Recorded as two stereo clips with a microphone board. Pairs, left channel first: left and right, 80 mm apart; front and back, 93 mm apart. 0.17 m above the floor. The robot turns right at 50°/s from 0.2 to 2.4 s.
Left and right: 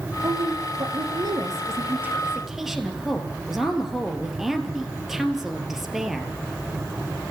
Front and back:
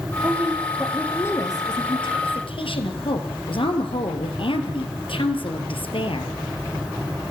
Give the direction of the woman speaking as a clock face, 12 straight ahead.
4 o'clock.